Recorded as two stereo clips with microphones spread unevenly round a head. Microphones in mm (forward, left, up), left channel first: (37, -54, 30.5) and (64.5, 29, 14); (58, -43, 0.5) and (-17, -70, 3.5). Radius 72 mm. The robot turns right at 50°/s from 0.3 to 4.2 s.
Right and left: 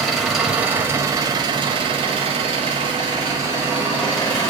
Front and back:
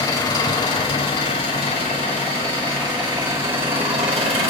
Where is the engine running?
15° right, 2 m; by 4.5 s straight behind, 2 m.